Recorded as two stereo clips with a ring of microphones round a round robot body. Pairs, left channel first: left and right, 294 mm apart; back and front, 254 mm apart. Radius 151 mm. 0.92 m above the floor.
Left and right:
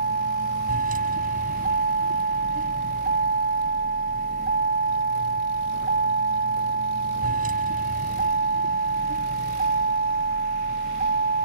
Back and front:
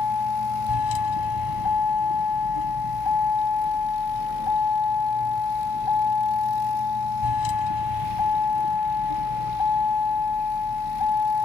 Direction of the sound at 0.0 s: 155° right.